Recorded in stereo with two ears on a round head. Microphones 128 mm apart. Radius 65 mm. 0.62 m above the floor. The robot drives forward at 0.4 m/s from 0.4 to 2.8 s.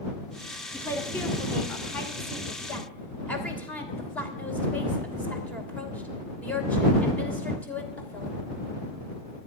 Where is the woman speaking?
15° left (ahead or behind), 2 m; by 8.4 s 10° left (ahead or behind), 3 m.